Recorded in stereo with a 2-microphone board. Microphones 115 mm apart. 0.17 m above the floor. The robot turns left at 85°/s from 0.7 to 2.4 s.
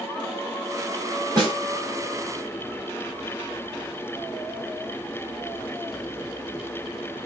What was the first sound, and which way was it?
A snare drum, 35° right (ahead or behind).